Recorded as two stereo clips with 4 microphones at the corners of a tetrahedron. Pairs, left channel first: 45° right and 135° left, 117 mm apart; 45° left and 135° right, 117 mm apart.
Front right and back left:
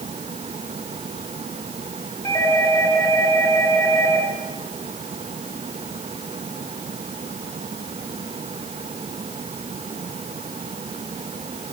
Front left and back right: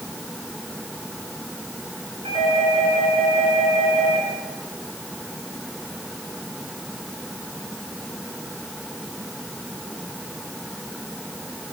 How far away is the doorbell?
About 5 m.